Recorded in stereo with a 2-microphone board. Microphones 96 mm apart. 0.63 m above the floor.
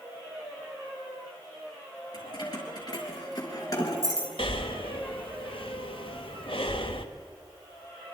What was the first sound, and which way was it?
Keys jangling, 45° left (ahead or behind).